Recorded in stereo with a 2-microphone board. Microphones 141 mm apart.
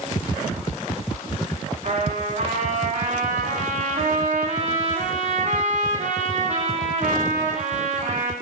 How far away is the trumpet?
About 3.5 m.